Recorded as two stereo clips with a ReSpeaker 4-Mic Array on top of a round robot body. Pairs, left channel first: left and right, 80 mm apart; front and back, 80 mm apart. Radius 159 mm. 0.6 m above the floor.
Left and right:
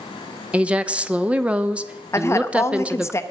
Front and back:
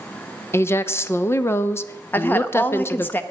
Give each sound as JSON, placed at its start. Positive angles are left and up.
{"t": 0.5, "sound": "a woman speaking", "azimuth_deg": -25, "distance_m": 0.9}
{"t": 2.1, "sound": "a woman speaking", "azimuth_deg": 55, "distance_m": 1.0}